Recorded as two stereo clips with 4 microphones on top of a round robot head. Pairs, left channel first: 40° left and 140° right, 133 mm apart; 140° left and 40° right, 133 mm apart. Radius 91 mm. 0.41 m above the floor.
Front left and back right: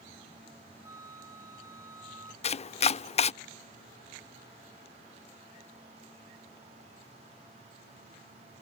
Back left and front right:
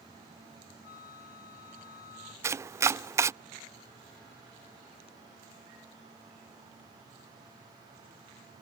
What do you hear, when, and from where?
0.8 s a flute: 150° left
2.4 s chopping: 25° left